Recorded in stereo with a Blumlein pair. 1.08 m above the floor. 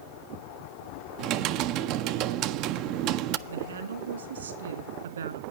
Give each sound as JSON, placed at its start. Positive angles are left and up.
{"t": 1.2, "sound": "typing on a keyboard", "azimuth_deg": -40, "distance_m": 0.6}
{"t": 3.5, "sound": "a woman speaking", "azimuth_deg": -70, "distance_m": 2.5}